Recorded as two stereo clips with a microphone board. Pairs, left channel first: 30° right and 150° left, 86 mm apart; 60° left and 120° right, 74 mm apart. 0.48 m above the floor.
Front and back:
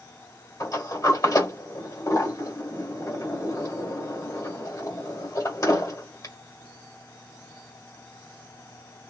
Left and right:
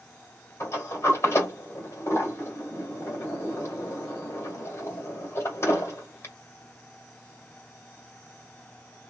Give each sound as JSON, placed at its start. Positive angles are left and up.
{"t": 0.6, "sound": "a sliding door", "azimuth_deg": 15, "distance_m": 1.7}